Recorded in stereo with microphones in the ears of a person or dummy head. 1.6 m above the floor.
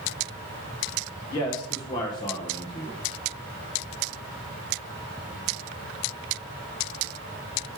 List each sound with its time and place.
1.3 s a man speaking: 20° left (ahead or behind), 1.3 m